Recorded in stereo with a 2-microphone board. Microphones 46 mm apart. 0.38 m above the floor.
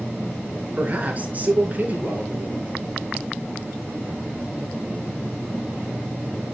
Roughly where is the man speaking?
Right.